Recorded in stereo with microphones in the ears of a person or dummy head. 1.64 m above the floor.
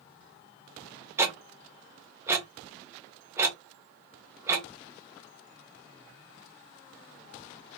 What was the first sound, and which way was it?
Ticking, 15° right (ahead or behind).